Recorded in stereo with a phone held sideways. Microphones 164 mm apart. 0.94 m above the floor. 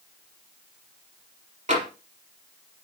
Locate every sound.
1.7 s tapping: 50° right (ahead or behind), 5 m